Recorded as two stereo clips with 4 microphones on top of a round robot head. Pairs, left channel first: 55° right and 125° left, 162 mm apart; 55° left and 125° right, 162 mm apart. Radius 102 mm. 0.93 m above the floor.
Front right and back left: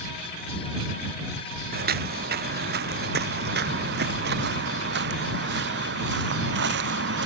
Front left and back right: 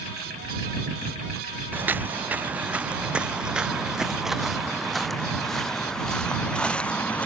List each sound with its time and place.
1.7 s footsteps: 155° left; by 7.3 s 135° left